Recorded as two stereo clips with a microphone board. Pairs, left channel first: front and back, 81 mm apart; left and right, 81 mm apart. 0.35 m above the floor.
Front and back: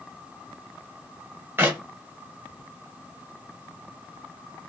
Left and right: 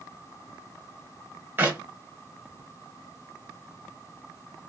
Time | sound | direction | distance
1.6 | a clap | 140° right | 0.9 m